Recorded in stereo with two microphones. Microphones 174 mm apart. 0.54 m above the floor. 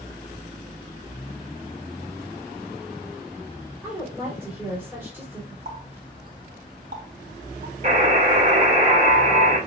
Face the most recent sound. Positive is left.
turn(degrees=-45)  # may be behind; listen again after turning